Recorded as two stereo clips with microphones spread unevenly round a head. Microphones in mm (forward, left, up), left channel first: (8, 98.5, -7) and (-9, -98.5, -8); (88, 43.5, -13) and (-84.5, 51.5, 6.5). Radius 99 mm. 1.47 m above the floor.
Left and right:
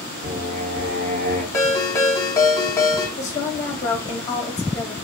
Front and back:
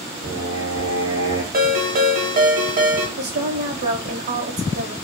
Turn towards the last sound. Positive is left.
turn(degrees=160)